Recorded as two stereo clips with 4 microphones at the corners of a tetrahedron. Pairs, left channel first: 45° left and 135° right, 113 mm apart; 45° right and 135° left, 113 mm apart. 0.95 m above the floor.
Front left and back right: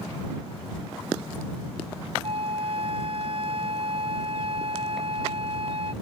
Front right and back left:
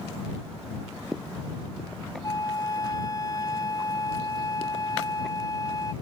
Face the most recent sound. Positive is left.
turn(degrees=-100)